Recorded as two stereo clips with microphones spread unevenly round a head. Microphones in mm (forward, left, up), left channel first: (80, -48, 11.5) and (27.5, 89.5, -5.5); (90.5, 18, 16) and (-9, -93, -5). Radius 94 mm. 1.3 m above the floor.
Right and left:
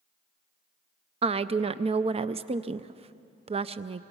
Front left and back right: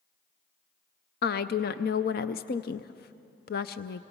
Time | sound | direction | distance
1.2 | a woman speaking | 70° left | 0.5 m